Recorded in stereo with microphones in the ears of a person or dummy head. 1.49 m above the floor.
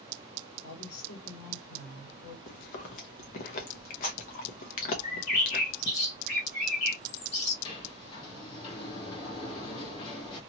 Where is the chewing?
40° left (ahead or behind), 0.7 m.